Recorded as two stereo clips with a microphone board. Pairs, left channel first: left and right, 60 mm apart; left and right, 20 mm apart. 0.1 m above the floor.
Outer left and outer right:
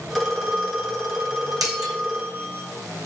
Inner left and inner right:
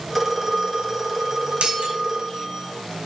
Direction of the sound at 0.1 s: Centre (ahead or behind).